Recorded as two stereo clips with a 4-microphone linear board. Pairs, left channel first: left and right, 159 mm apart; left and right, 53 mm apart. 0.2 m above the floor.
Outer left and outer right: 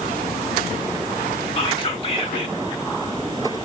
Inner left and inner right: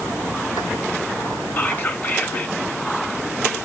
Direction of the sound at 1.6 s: 35° left (ahead or behind).